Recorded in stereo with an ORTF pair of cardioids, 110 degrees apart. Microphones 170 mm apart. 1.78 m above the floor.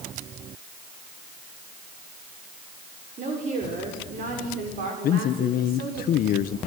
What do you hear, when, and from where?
3.2 s a woman speaking: 45° right, 7 m; by 6.0 s 70° right, 6 m
5.0 s a man speaking: 65° left, 1.3 m